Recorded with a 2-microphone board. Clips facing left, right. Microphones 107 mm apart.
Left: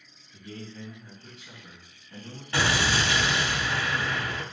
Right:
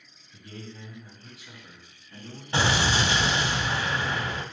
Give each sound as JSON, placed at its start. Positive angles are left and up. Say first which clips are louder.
{"t": 0.3, "sound": "a man speaking", "louder": "left 2 dB", "side_deg": -30, "distance_m": 2.5}
{"t": 2.5, "sound": "an explosion", "louder": "right 1 dB", "side_deg": -25, "distance_m": 0.6}